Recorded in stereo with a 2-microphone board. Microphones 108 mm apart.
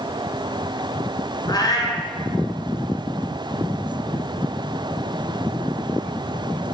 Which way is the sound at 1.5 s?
40° left (ahead or behind).